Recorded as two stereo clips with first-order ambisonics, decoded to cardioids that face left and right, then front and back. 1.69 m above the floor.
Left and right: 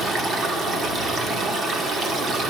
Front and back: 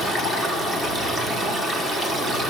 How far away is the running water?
About 1.3 m.